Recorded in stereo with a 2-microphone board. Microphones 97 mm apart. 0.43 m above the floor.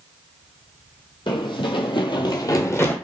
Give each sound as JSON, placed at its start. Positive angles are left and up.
{"t": 1.3, "sound": "running footsteps", "side_deg": 55, "distance_m": 0.9}